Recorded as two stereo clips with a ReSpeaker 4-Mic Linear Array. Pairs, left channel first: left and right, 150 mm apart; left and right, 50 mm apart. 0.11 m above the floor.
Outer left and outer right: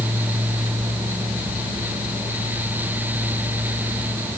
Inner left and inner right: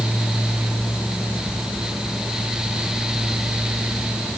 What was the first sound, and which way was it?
Only background noise.